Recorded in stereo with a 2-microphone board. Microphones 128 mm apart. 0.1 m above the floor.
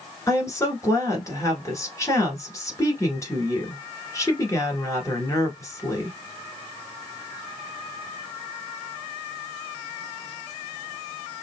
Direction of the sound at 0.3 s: 25° left (ahead or behind).